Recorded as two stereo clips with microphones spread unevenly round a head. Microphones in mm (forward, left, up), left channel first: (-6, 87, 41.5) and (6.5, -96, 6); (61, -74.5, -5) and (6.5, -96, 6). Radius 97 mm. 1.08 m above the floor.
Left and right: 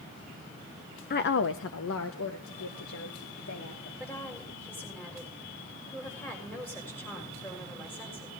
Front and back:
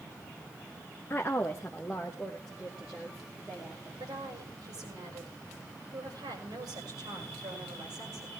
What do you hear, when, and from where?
1.1 s a woman speaking: 60° left, 0.6 m; by 3.9 s 115° left, 3 m
4.0 s a woman speaking: 175° left, 6 m